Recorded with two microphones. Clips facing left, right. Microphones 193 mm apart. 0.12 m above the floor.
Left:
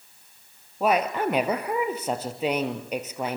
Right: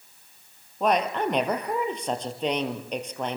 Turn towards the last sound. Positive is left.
turn(degrees=5)  # may be behind; listen again after turning